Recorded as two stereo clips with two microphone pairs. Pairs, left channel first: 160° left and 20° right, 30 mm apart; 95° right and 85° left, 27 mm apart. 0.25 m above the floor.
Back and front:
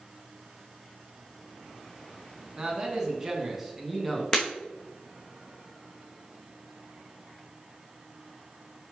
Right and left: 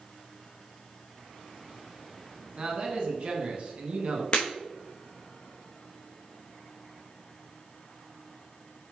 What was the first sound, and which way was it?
A man speaking, 45° left.